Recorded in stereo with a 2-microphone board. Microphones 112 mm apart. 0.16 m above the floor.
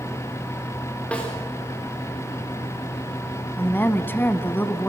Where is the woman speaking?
20° left (ahead or behind), 1.2 m.